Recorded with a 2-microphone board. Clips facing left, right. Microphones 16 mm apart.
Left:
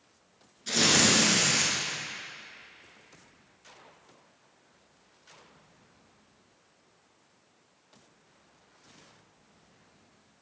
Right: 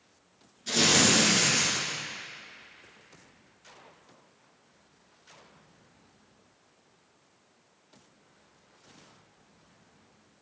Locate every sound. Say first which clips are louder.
0.7 s tearing paper: even; 5° left (ahead or behind), 2.5 m